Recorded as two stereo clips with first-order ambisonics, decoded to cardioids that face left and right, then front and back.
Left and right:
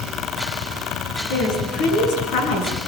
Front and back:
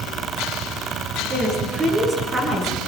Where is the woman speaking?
115° left, 9.5 m; by 2.8 s 105° left, 9.5 m.